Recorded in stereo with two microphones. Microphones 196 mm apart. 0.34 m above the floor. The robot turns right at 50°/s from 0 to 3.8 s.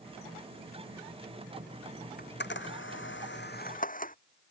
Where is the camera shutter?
55° left (ahead or behind); by 4.2 s 45° left (ahead or behind).